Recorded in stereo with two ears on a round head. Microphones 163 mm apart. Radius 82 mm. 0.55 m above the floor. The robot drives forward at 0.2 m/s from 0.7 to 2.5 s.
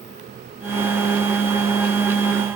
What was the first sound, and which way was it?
Only background noise.